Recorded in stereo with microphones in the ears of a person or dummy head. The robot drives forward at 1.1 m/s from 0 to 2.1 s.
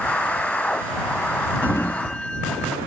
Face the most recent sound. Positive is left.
turn(degrees=5)  # may be behind; listen again after turning